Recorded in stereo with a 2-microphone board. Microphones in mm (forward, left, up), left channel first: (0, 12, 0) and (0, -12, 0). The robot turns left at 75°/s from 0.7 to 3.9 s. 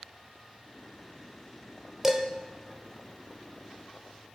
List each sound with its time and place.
2.0 s dishes clattering: 15° right (ahead or behind), 0.9 m; by 2.2 s 5° right (ahead or behind), 0.9 m